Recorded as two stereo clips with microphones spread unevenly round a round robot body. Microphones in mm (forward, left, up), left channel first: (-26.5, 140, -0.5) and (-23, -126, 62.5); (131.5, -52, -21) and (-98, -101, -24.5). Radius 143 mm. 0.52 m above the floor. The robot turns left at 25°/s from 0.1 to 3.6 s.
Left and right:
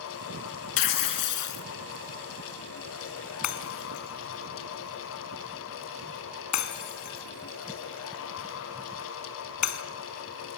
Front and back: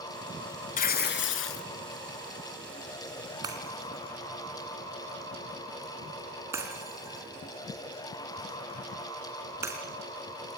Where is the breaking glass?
115° left, 2.5 m; by 9.8 s 110° left, 2.5 m.